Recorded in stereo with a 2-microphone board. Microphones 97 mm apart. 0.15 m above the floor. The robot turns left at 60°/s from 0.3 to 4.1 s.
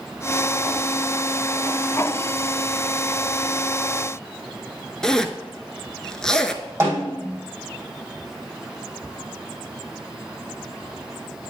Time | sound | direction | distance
5.0 | a zipper | 5° left (ahead or behind) | 0.5 m
6.8 | a snare drum | 30° right (ahead or behind) | 3 m